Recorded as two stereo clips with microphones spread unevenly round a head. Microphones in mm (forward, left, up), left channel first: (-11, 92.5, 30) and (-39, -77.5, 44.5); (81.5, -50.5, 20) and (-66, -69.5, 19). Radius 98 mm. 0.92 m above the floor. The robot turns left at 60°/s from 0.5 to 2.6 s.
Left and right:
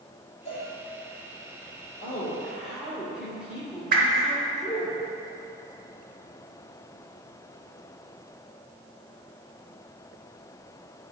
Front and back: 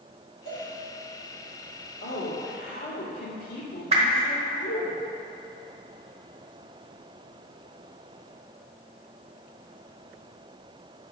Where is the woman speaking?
20° left, 2 m; by 4.9 s 15° right, 2 m.